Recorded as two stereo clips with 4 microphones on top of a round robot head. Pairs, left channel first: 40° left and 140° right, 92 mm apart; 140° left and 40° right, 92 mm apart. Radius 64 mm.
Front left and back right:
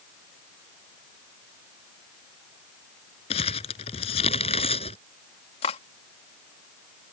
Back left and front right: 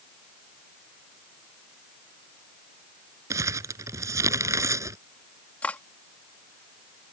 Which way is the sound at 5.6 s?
60° left.